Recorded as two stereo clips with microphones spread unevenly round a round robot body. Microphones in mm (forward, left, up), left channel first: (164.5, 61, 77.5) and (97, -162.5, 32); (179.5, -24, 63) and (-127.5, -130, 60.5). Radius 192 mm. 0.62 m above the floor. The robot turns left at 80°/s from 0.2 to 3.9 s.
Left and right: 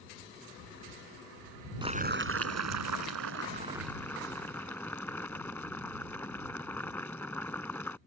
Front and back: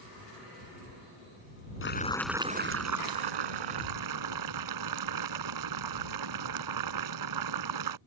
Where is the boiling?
35° right; by 8.0 s 160° left.